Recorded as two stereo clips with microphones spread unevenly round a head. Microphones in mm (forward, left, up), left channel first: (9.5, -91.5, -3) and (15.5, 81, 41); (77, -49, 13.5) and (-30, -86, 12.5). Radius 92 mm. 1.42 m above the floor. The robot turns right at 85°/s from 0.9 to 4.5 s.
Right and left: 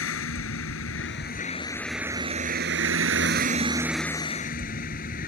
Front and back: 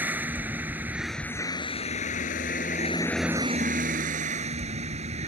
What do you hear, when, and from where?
0.0 s a vehicle: 85° right; by 5.3 s 140° right